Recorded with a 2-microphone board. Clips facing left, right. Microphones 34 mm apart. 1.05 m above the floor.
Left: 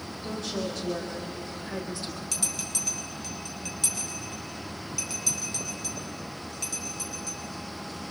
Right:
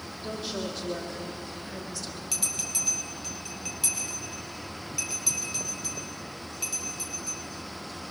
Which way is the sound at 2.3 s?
10° right (ahead or behind).